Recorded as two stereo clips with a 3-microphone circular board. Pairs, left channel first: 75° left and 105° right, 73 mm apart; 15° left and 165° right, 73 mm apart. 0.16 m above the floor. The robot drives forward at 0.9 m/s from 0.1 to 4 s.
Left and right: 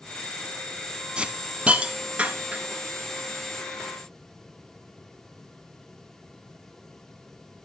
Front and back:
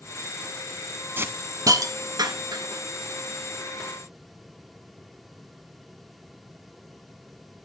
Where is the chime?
I don't hear a chime.